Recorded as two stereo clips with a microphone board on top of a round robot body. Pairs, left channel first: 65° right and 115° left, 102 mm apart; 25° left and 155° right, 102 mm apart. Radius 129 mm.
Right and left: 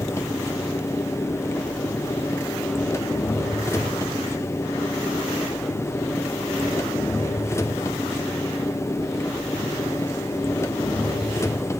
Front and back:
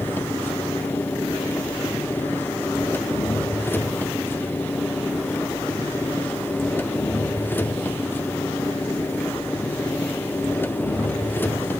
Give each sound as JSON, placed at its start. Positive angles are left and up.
{"t": 0.0, "sound": "an engine running", "azimuth_deg": -30, "distance_m": 1.1}